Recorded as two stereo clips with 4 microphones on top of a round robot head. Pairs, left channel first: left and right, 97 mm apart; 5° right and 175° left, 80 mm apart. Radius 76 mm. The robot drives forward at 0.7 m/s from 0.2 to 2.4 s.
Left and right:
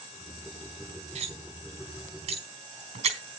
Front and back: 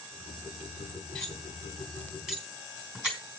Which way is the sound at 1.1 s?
90° right.